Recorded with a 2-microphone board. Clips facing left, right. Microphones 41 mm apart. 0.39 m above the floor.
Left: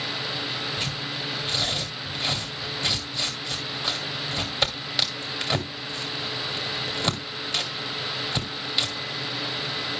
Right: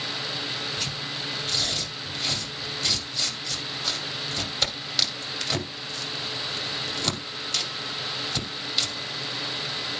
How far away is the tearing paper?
About 2.5 m.